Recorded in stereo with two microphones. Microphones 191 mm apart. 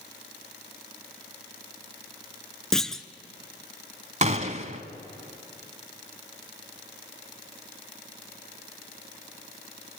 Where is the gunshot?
40° right (ahead or behind), 1.3 m.